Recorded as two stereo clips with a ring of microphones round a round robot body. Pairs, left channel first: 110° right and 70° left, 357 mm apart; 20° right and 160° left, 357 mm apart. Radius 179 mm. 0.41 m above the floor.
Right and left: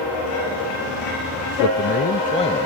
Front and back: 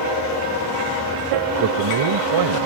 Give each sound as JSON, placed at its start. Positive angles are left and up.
{"t": 1.6, "sound": "a man speaking", "azimuth_deg": -160}